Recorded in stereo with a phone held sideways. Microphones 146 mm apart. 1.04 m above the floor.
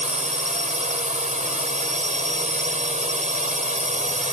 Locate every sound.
0.0 s a drone: 60° right (ahead or behind)